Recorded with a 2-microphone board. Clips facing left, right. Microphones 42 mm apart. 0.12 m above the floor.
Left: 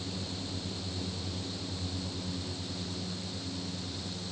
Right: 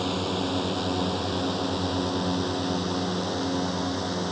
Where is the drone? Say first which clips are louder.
Right 12 dB; 70° right (ahead or behind).